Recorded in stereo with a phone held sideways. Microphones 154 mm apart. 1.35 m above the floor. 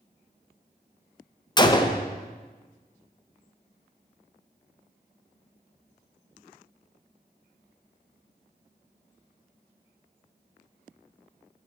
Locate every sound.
1.6 s a gunshot: 25° left (ahead or behind), 0.6 m